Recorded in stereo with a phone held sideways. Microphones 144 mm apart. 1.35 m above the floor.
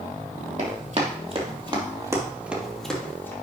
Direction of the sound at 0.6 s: 55° right (ahead or behind).